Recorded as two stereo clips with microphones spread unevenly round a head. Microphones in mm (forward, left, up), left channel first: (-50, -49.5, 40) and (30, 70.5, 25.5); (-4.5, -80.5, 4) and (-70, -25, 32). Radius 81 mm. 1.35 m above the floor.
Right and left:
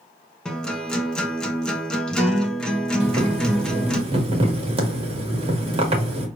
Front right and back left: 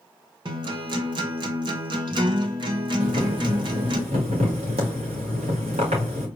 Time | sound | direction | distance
0.5 | a guitar | 155° left | 0.9 m
3.0 | boiling | 110° left | 1.6 m